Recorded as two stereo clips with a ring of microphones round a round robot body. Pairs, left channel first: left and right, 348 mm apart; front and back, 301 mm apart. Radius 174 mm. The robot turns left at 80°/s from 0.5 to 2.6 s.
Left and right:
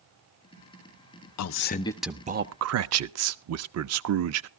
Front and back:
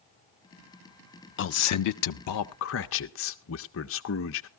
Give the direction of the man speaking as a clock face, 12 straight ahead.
10 o'clock.